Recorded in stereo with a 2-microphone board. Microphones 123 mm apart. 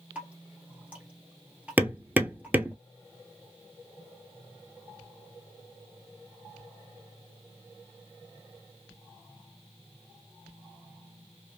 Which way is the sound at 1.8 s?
15° right (ahead or behind).